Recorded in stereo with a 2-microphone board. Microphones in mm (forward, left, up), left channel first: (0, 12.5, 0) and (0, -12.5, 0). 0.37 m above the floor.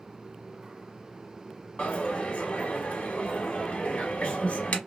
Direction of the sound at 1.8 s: 60° left (ahead or behind).